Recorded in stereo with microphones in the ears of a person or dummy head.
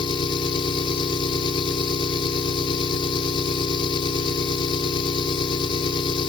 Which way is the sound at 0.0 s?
30° left (ahead or behind).